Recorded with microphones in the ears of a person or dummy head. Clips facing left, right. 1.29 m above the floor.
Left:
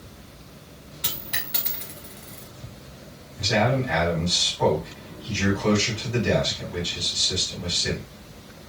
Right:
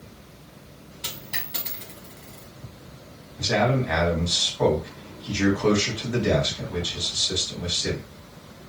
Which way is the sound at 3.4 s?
55° right (ahead or behind).